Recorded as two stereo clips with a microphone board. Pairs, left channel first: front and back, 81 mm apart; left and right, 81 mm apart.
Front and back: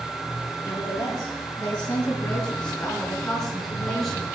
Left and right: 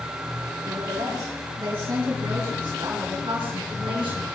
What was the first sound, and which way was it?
A woman speaking, 55° right.